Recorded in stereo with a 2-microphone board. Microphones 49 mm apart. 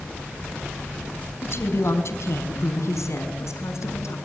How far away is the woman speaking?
About 4 m.